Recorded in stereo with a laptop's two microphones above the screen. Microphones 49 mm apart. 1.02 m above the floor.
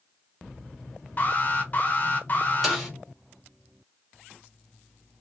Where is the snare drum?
5° right (ahead or behind), 2 m.